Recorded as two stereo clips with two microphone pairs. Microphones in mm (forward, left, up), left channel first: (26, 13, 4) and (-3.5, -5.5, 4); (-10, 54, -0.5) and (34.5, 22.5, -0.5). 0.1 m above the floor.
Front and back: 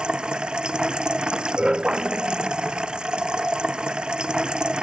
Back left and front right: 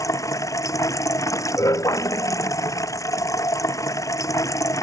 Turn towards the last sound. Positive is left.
turn(degrees=150)